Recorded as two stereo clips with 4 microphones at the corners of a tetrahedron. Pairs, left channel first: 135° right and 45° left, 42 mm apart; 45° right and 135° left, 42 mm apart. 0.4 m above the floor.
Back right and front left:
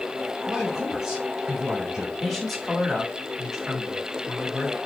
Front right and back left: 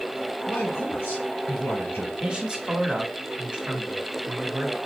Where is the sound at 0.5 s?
35° right, 2.5 m.